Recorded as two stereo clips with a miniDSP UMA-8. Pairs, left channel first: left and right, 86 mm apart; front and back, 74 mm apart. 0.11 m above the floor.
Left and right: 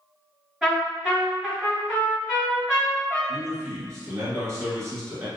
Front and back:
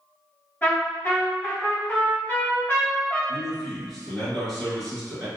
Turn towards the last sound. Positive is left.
turn(degrees=-85)